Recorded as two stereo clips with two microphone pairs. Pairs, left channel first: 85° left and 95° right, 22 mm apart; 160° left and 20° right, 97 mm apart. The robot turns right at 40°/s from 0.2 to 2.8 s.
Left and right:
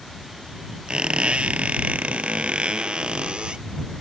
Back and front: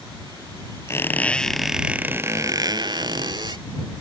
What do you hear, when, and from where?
0.9 s a squeak: 135° right; by 3.6 s 60° right